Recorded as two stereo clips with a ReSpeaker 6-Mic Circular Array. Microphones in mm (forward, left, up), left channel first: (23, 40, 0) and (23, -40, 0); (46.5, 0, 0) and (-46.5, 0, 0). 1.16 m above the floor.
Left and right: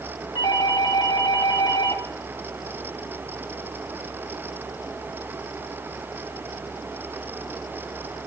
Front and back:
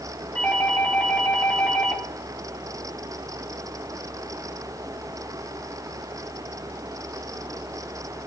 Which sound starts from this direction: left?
A doorbell, at 0.3 s.